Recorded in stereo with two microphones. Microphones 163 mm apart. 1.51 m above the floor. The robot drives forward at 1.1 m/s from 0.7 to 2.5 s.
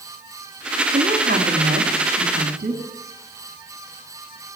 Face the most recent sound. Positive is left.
turn(degrees=-60)  # may be behind; listen again after turning